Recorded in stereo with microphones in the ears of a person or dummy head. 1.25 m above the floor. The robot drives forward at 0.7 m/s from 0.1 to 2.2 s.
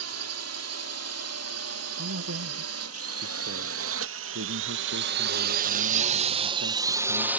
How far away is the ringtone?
No ringtone in this recording.